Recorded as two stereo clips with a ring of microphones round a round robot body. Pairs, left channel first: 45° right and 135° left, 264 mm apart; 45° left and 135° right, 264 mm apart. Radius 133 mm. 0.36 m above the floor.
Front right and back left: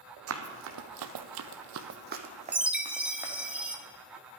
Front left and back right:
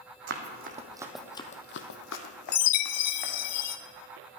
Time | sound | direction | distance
0.3 | running footsteps | 175° left | 1.4 m
2.5 | a chime | 50° left | 0.8 m